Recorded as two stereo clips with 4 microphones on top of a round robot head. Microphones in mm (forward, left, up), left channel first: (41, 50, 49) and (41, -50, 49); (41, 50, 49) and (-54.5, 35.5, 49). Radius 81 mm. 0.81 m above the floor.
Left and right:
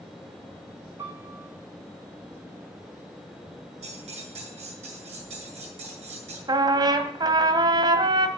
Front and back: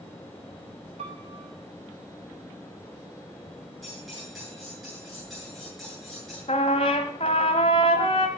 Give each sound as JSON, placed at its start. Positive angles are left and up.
{"t": 1.0, "sound": "a piano", "azimuth_deg": -155, "distance_m": 3.5}
{"t": 3.8, "sound": "cutlery clinking", "azimuth_deg": -80, "distance_m": 8.5}
{"t": 6.5, "sound": "a trumpet", "azimuth_deg": -40, "distance_m": 1.5}